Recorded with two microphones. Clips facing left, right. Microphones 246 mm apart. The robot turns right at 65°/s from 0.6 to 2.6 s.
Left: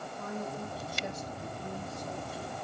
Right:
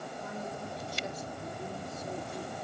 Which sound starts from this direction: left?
A man speaking, at 0.2 s.